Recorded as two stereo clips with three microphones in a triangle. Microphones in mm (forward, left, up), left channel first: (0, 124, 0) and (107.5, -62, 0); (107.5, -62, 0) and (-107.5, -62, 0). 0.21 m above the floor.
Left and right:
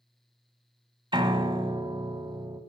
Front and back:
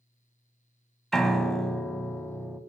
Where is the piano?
85° right, 1.0 m.